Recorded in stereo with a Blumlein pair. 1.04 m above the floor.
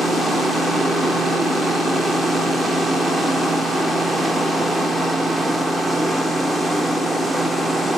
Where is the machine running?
5° right, 0.8 m.